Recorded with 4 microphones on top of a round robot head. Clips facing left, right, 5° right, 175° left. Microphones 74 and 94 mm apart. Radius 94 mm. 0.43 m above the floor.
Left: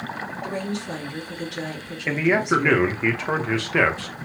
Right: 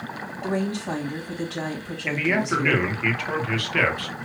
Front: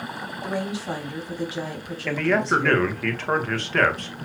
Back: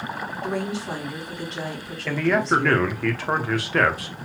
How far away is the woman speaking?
About 3.5 m.